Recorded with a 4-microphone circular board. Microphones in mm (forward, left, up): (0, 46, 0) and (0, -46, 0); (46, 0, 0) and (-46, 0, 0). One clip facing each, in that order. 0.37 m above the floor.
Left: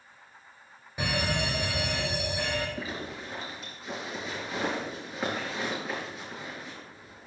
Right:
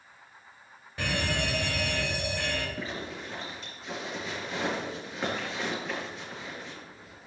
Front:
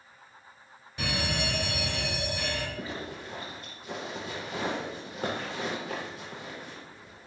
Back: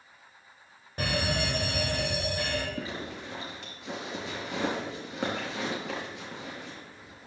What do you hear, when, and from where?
1.0 s a fire alarm: 160° left, 2.5 m
2.8 s a zipper: 175° left, 4 m